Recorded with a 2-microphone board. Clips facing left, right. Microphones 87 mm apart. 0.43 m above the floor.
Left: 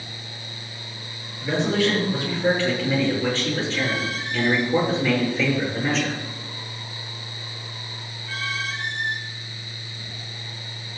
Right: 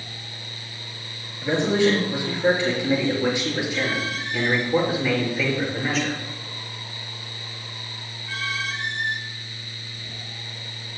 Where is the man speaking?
25° right (ahead or behind), 7 m; by 6.2 s centre (ahead or behind), 6 m.